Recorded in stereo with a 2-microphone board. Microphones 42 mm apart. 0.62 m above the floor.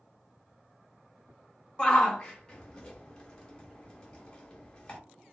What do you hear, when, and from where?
1.8 s a shout: 20° left (ahead or behind), 0.8 m